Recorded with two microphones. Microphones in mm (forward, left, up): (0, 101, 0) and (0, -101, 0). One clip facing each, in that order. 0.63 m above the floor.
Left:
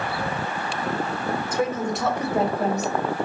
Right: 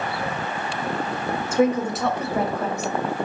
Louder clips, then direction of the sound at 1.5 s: Right 7 dB; 25° right (ahead or behind).